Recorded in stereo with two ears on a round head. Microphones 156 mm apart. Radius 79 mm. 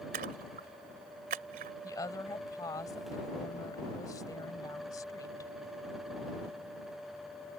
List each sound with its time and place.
0.1 s a splash: 50° right (ahead or behind)
1.8 s a woman speaking: 20° left (ahead or behind)